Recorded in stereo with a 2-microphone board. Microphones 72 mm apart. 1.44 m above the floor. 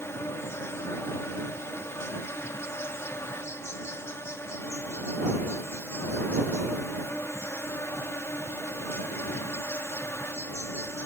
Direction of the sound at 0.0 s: 35° left (ahead or behind).